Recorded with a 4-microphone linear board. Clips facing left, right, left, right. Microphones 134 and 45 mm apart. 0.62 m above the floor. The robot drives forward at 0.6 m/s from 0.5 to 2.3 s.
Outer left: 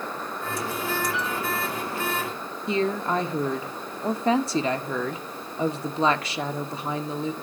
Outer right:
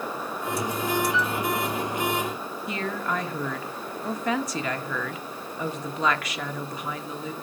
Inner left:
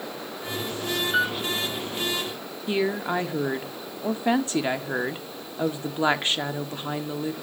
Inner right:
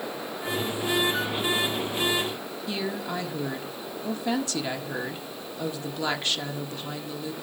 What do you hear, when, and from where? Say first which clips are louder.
1.1 s a piano: outer right 2 dB, inner left 5 dB; 60° left (ahead or behind), 8 m
2.7 s a woman speaking: outer left 6 dB, inner left 7 dB; 30° left (ahead or behind), 1.6 m